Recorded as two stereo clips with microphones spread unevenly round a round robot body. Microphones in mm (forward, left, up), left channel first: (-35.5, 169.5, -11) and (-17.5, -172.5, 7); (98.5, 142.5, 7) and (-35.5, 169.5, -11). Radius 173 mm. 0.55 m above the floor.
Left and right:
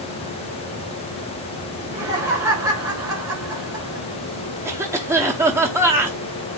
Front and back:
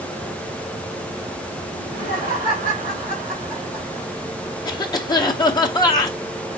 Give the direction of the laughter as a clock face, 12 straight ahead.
6 o'clock.